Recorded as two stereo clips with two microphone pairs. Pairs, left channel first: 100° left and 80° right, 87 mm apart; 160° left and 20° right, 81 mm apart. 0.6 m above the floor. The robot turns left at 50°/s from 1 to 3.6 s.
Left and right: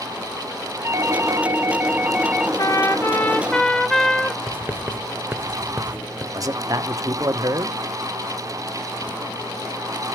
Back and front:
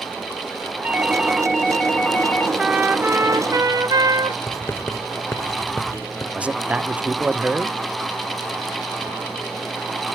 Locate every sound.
0.8 s a doorbell: 85° right, 1.1 m; by 2.5 s 160° right, 1.1 m
2.6 s a trumpet: 65° left, 1.0 m; by 4.4 s 15° left, 1.0 m
4.5 s writing: 150° right, 0.9 m
6.3 s a man speaking: 85° right, 1.0 m